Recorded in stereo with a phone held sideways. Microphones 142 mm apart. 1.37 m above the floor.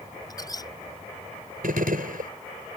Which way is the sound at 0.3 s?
30° left (ahead or behind).